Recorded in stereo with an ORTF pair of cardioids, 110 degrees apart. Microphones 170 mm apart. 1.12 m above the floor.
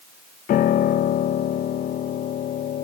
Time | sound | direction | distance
0.5 | a piano | 55° left | 0.7 m